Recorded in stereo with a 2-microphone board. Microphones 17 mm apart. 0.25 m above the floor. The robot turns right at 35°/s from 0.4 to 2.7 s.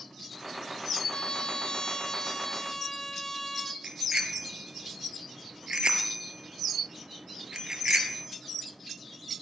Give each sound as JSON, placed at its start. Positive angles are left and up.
{"t": 1.1, "sound": "a trumpet", "azimuth_deg": 90, "distance_m": 2.0}
{"t": 3.8, "sound": "a bicycle bell", "side_deg": -75, "distance_m": 3.5}